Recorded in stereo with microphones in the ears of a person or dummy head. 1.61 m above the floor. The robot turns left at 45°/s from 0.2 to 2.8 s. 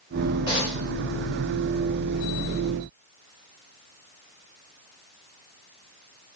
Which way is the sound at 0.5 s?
25° left (ahead or behind).